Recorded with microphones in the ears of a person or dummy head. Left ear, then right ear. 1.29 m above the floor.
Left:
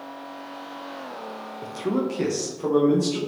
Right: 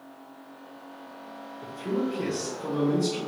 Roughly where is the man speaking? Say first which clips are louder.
Left 3 dB; left.